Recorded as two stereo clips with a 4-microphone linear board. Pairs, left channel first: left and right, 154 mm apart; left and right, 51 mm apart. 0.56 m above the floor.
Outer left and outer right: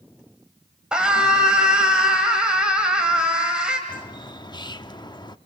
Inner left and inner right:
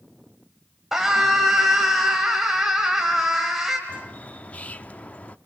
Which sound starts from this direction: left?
A bird, at 3.9 s.